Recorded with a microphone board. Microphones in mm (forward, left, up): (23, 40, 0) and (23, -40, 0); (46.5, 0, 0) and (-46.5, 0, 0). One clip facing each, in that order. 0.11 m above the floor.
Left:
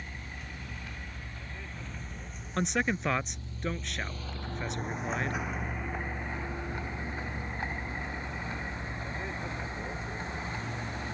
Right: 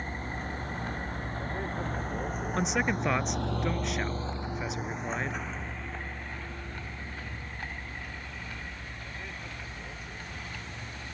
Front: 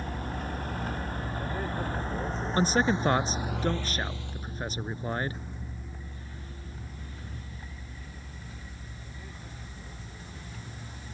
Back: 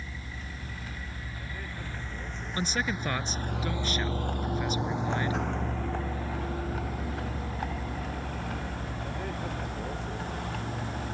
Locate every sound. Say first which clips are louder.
0.0 s a vehicle: right 8 dB, front 8 dB; 40° right; by 11.1 s 155° left
2.6 s a man speaking: even, front 6 dB; 5° right